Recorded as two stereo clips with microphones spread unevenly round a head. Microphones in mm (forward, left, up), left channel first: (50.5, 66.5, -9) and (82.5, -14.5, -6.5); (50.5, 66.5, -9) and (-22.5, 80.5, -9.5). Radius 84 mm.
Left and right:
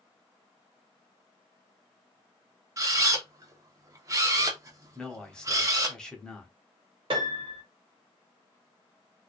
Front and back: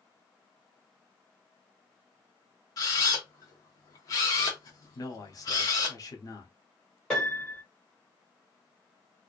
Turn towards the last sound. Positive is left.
turn(degrees=-95)